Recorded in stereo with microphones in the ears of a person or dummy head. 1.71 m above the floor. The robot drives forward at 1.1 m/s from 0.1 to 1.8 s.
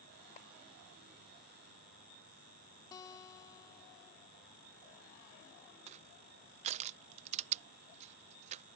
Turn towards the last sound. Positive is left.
turn(degrees=-35)  # may be behind; listen again after turning